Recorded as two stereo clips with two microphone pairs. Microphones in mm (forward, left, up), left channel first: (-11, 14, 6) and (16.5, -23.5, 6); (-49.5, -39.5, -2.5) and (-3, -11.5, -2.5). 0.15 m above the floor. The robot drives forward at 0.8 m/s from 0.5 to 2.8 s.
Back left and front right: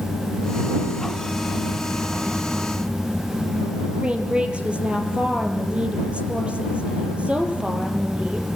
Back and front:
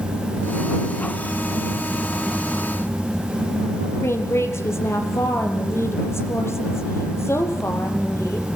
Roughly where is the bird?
No bird in this recording.